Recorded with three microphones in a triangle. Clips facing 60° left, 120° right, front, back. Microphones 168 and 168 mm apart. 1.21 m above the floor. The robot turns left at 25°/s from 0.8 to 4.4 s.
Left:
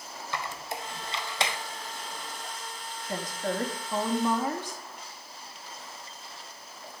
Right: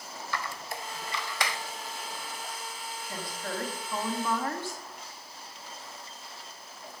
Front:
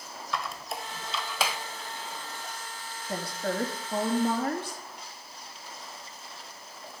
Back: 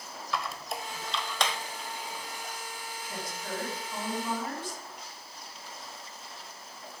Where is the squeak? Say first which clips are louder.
Left 1 dB, even; 90° left, 1.0 m; by 1.6 s 70° left, 1.0 m.